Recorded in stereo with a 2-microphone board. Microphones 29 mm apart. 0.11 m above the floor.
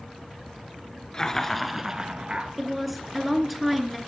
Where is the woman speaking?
Centre (ahead or behind), 1.2 m.